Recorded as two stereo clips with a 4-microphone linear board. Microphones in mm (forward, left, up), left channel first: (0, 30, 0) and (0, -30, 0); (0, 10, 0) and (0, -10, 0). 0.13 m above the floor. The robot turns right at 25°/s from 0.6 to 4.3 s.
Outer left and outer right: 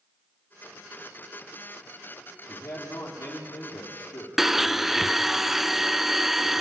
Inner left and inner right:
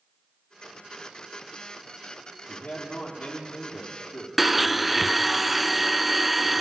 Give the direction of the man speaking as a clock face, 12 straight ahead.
10 o'clock.